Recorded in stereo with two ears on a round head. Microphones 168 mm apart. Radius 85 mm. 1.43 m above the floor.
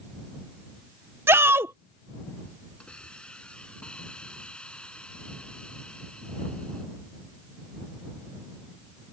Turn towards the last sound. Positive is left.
turn(degrees=5)  # may be behind; listen again after turning